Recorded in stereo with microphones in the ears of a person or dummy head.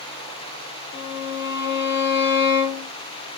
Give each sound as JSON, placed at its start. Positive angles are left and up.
{"t": 0.9, "sound": "a violin", "side_deg": 55, "distance_m": 0.8}